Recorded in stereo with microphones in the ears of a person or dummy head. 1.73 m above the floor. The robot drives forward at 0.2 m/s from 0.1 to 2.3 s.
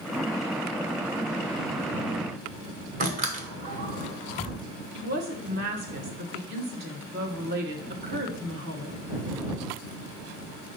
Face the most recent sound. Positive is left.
turn(degrees=-50)  # may be behind; listen again after turning